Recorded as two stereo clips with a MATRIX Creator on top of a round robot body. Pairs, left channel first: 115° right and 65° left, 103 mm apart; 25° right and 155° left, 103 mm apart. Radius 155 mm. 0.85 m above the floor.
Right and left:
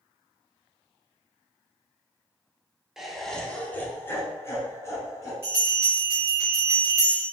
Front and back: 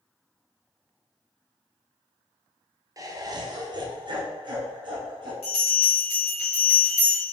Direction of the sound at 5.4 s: Straight ahead.